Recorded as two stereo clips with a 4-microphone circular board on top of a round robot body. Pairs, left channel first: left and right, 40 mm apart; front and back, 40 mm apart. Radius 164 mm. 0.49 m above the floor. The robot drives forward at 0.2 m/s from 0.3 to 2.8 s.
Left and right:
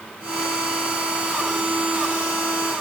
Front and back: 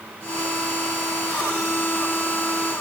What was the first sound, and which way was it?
Only background noise.